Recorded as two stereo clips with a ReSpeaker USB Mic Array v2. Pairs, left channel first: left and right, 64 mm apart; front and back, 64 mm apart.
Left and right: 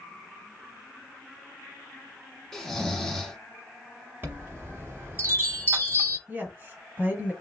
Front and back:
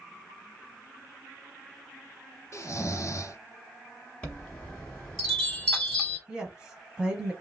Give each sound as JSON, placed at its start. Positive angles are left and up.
{"t": 2.5, "sound": "snoring", "azimuth_deg": 10, "distance_m": 0.7}
{"t": 4.2, "sound": "a chime", "azimuth_deg": -65, "distance_m": 1.0}
{"t": 6.3, "sound": "a woman speaking", "azimuth_deg": -115, "distance_m": 1.2}